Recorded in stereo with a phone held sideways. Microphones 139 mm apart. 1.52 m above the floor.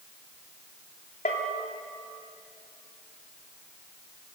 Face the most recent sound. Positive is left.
turn(degrees=70)  # may be behind; listen again after turning